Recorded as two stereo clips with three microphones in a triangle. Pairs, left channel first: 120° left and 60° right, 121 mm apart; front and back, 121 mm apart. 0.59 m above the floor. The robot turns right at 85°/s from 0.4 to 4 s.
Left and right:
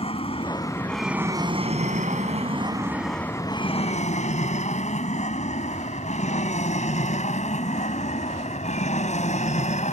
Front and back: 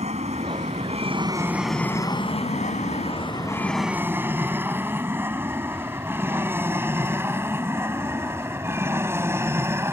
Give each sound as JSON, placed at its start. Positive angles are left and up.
{"t": 0.0, "sound": "an aircraft", "azimuth_deg": 160}